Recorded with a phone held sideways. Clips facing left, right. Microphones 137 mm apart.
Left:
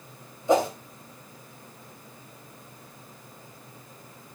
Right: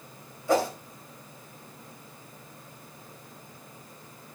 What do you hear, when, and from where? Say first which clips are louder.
0.5 s a whoosh: left 3 dB; 20° left (ahead or behind), 3 m